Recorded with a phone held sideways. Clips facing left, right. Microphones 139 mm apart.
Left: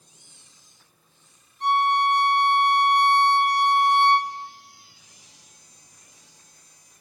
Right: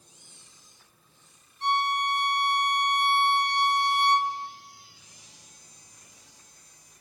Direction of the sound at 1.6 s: 65° left (ahead or behind).